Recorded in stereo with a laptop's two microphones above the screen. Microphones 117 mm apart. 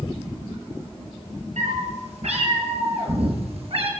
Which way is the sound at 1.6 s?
80° right.